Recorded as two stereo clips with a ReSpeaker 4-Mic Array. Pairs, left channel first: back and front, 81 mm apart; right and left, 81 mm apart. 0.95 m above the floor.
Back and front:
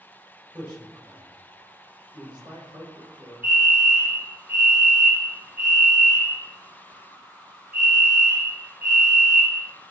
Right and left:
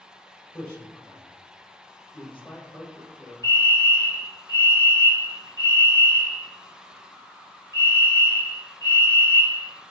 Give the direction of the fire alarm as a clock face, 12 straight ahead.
2 o'clock.